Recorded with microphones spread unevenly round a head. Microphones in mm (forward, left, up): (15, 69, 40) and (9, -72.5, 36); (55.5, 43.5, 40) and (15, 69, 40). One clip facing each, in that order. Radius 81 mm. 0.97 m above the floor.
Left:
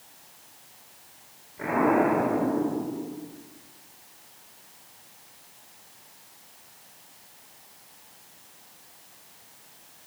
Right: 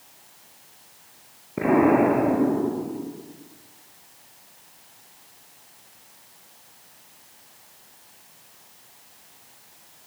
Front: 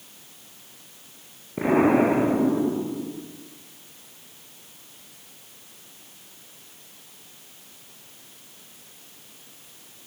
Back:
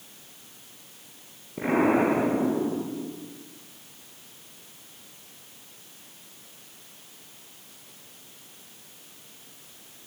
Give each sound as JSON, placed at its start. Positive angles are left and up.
{"t": 1.6, "sound": "an explosion", "azimuth_deg": -105, "distance_m": 9.0}